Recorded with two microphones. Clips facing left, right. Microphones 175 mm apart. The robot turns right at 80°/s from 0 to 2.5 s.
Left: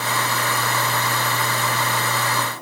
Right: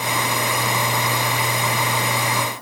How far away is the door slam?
No door slam in this recording.